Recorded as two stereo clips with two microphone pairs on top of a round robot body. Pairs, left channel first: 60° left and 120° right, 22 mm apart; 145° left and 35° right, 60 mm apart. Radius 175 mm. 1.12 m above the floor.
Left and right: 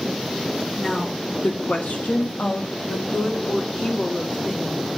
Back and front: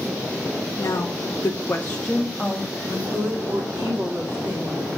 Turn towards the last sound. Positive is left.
turn(degrees=20)